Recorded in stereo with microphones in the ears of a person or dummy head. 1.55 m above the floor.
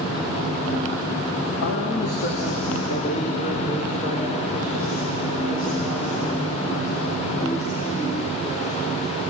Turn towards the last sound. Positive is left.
turn(degrees=20)  # may be behind; listen again after turning